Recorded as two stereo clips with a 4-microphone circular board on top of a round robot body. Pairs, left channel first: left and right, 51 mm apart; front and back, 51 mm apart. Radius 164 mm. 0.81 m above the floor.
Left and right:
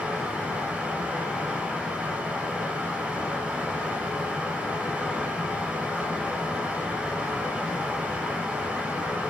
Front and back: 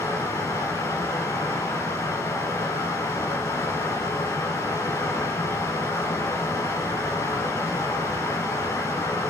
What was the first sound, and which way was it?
Running water, 15° right.